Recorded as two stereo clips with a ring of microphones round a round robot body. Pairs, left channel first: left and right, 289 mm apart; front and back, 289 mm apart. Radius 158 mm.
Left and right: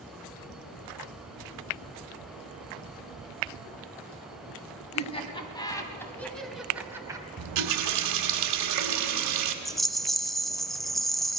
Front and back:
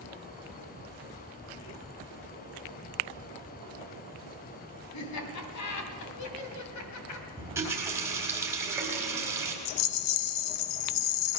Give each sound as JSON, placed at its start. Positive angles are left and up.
{"t": 4.9, "sound": "laughter", "azimuth_deg": 20, "distance_m": 2.5}
{"t": 7.4, "sound": "a running tap", "azimuth_deg": -100, "distance_m": 1.3}
{"t": 9.7, "sound": "a rattle", "azimuth_deg": 0, "distance_m": 0.7}